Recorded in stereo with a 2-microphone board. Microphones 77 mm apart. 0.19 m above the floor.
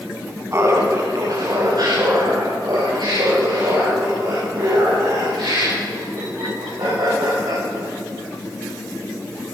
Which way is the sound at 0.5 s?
35° right (ahead or behind).